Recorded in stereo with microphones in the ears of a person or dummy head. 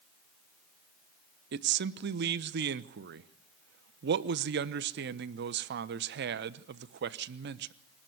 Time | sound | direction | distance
1.5 | a man speaking | 55° right (ahead or behind) | 0.9 m